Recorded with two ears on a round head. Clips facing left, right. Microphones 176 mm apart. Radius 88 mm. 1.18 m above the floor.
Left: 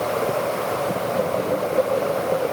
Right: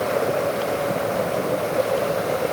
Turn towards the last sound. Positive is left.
No sound to turn to.